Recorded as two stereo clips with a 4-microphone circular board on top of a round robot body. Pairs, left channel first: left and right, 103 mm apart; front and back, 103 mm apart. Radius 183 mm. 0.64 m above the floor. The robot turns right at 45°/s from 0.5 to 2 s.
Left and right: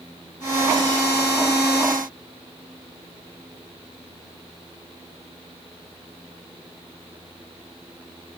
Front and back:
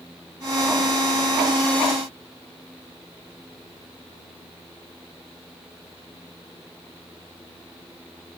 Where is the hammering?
I don't hear hammering.